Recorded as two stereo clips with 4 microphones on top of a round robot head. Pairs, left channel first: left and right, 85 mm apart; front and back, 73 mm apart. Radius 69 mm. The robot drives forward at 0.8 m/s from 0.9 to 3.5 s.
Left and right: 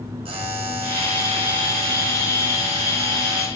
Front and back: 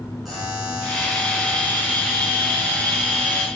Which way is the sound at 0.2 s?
90° right.